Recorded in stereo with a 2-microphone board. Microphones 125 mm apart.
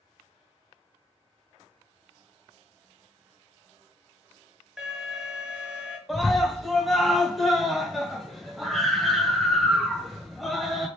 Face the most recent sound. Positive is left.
turn(degrees=0)  # may be behind; listen again after turning